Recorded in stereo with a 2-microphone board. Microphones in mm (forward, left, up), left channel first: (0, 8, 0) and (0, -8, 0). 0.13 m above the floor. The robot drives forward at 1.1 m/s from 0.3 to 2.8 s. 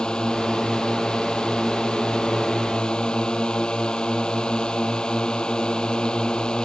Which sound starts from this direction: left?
A drone, at 0.0 s.